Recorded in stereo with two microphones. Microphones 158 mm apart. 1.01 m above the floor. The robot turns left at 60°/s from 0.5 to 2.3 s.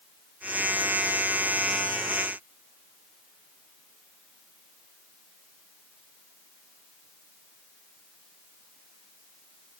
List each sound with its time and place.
Only background noise.